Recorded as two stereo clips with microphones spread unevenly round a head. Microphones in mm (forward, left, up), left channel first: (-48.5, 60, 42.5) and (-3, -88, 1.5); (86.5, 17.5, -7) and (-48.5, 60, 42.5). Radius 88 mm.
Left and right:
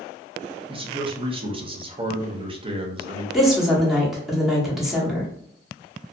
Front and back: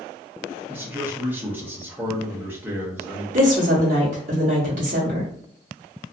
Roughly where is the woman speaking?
Behind right.